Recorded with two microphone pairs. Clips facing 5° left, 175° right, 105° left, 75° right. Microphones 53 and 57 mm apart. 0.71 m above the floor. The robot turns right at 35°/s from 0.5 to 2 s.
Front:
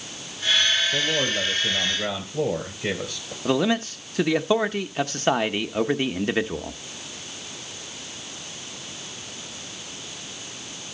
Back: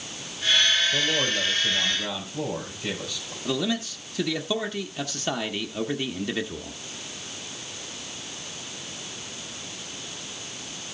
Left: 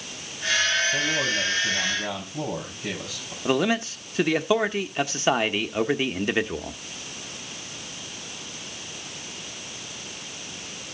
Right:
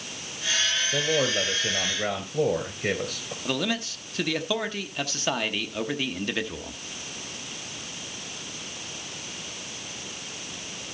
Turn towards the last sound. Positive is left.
turn(degrees=45)